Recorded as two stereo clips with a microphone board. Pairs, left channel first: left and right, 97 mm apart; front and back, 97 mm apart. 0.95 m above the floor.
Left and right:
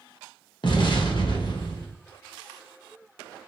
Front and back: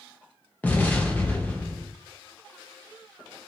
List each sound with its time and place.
0.6 s an explosion: 70° left, 0.8 m